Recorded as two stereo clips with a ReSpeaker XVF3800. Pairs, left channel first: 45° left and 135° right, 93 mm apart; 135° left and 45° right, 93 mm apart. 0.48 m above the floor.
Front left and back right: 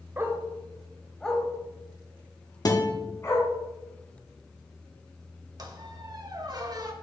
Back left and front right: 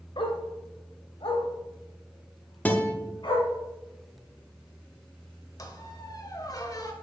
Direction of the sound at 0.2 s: 160° left.